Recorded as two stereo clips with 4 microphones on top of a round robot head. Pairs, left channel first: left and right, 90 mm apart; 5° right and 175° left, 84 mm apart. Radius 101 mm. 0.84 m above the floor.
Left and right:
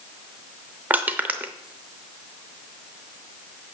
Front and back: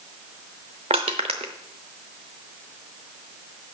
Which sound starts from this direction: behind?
Crushing, at 0.9 s.